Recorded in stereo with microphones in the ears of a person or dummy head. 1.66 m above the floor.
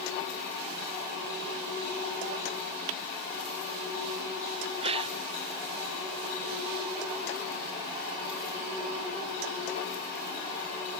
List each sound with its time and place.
4.8 s a gasp: 35° right (ahead or behind)